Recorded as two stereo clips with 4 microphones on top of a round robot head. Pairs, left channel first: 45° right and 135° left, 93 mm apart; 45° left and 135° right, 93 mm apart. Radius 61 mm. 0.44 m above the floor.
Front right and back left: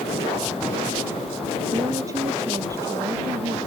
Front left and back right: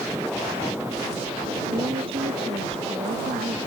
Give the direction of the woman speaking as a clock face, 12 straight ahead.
6 o'clock.